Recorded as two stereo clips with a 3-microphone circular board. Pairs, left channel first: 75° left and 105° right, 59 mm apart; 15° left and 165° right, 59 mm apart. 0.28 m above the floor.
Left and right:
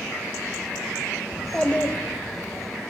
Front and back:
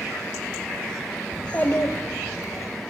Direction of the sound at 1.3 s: 80° right.